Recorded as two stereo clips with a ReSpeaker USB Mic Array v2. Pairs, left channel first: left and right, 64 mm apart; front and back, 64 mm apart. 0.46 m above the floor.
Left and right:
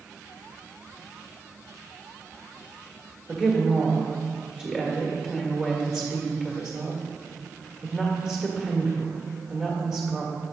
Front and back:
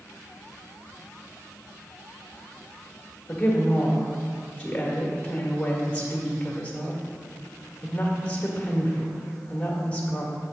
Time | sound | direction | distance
3.3 | a woman speaking | 25° right | 1.4 m